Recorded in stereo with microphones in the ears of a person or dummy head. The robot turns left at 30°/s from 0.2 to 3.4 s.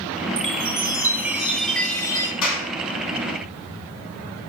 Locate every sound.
0.4 s a chime: 145° right, 0.8 m; by 2.3 s 160° left, 0.8 m
2.4 s a clap: 80° left, 4.5 m; by 2.7 s 70° left (ahead or behind), 4.5 m